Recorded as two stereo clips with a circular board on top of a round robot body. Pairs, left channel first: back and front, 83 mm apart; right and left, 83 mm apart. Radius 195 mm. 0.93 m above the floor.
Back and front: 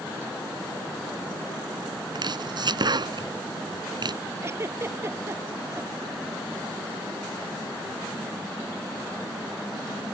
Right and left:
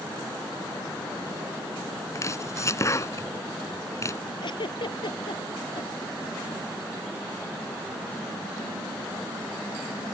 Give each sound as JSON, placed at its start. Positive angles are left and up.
{"t": 2.1, "sound": "chopping", "azimuth_deg": -35}
{"t": 4.4, "sound": "a giggle", "azimuth_deg": -60}